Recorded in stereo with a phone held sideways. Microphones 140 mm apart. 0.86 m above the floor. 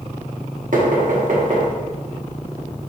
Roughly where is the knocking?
Right.